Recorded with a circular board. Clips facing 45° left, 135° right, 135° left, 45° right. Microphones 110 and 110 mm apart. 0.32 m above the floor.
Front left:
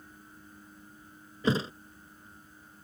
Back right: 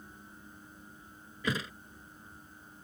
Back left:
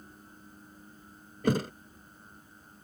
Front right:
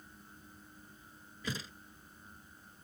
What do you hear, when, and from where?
1.4 s a thud: 105° left